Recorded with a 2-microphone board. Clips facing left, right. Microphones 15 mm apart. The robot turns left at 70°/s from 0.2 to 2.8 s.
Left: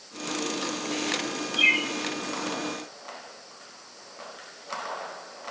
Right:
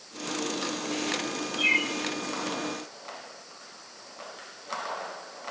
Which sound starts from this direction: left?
A bird, at 1.6 s.